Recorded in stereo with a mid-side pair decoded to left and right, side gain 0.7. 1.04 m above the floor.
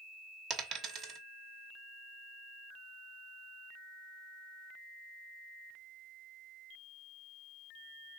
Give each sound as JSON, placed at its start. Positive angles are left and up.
{"t": 0.5, "sound": "a dropped coin", "azimuth_deg": -50, "distance_m": 0.9}